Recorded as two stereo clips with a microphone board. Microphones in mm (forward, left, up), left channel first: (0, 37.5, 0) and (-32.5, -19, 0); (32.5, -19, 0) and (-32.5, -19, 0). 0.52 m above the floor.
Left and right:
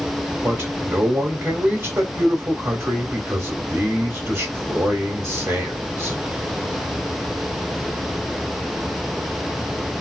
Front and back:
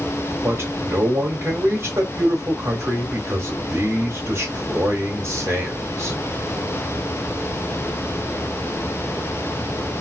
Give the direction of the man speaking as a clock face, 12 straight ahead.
5 o'clock.